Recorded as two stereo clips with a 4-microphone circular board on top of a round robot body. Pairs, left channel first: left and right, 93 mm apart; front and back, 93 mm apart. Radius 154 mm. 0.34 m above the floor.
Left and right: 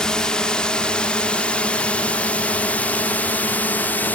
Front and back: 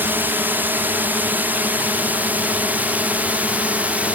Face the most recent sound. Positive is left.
turn(degrees=130)